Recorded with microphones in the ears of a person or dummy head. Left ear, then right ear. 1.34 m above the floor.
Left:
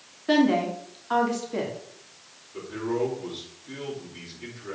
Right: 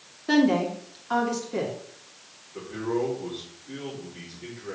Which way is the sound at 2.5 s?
50° left (ahead or behind).